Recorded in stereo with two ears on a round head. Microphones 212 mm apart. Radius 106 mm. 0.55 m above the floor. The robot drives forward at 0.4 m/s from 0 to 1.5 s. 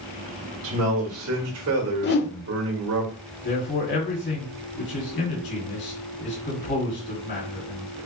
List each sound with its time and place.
0.6 s a man speaking: 60° right (ahead or behind), 1.8 m; by 3.0 s 65° right (ahead or behind), 1.7 m
2.0 s a whoosh: 45° left (ahead or behind), 0.5 m
3.4 s a man speaking: 50° left (ahead or behind), 1.9 m